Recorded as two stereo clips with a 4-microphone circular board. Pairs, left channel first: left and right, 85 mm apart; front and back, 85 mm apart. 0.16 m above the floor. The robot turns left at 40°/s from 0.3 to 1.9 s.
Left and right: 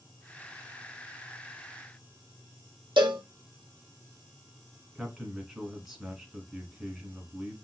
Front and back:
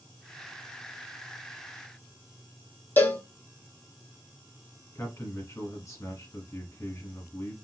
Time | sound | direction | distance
3.0 | a cowbell | 70° right | 0.8 m
5.0 | a man speaking | 5° right | 1.5 m